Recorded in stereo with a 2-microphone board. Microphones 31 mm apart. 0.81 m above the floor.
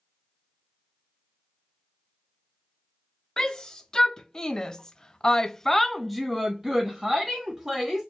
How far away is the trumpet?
I don't hear a trumpet.